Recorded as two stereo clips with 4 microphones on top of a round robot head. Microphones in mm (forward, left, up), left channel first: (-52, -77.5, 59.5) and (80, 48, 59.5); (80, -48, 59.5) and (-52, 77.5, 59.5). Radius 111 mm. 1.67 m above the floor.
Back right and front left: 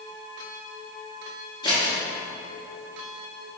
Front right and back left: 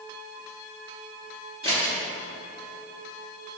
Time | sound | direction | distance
1.6 | scissors | 175° left | 0.8 m